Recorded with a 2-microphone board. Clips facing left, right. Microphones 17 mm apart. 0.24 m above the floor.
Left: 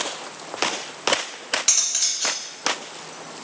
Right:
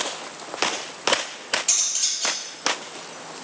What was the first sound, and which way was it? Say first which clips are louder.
Cutlery clinking: left 4 dB; 65° left (ahead or behind).